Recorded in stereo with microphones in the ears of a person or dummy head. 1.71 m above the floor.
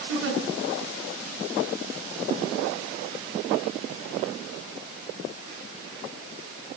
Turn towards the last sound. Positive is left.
turn(degrees=-70)  # may be behind; listen again after turning